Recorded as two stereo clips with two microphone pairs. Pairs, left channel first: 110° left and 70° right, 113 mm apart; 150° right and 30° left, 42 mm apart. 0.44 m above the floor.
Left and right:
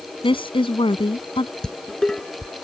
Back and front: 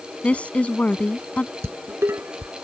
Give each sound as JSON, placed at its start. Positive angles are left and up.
{"t": 0.2, "sound": "a woman speaking", "azimuth_deg": 150}
{"t": 1.6, "sound": "dishes clattering", "azimuth_deg": 30}